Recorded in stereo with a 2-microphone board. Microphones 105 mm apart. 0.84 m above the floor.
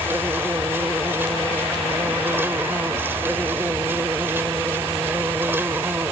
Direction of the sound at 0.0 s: 20° right (ahead or behind).